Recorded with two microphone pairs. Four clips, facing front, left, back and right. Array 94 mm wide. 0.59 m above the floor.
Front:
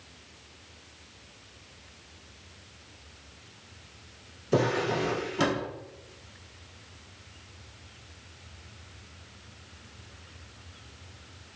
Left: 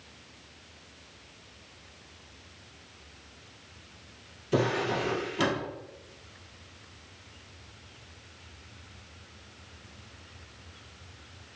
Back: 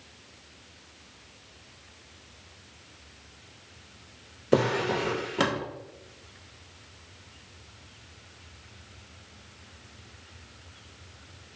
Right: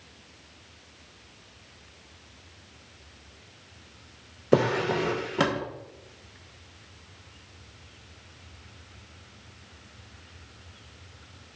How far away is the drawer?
About 0.6 m.